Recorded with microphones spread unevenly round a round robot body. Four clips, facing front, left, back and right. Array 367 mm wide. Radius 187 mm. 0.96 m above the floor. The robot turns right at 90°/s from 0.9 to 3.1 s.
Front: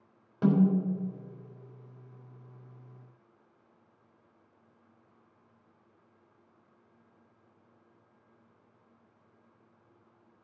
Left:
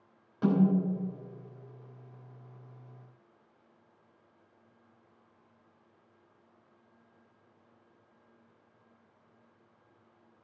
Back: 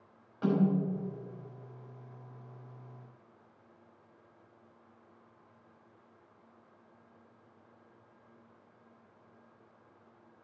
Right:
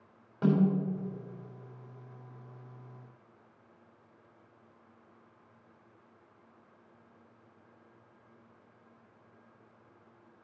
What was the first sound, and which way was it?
A snare drum, 30° right.